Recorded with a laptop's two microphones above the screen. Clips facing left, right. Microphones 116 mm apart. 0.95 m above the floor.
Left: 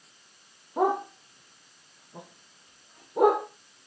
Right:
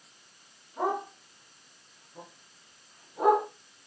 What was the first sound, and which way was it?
A dog barking, 85° left.